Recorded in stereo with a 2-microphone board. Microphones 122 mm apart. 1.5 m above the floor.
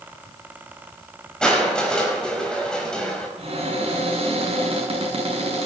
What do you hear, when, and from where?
1.4 s crushing: 5° left (ahead or behind), 4.5 m
3.4 s a cupboard door: 55° right (ahead or behind), 7.5 m